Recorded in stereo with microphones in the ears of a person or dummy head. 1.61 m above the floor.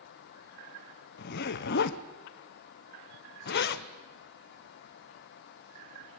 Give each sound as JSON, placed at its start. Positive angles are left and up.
{"t": 1.2, "sound": "a zipper", "side_deg": 65, "distance_m": 1.0}